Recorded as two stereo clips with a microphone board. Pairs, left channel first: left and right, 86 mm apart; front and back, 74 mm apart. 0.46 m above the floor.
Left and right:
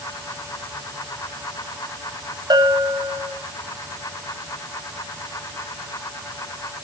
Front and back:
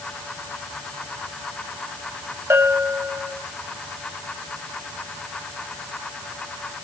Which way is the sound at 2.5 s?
125° right.